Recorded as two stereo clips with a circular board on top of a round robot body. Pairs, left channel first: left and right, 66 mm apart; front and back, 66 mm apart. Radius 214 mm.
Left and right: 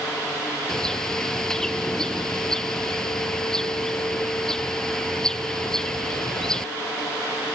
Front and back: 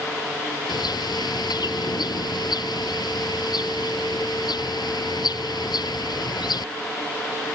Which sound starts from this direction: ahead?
A bird, at 0.7 s.